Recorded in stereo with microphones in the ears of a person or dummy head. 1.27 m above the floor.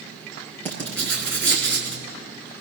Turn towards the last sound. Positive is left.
turn(degrees=5)  # may be behind; listen again after turning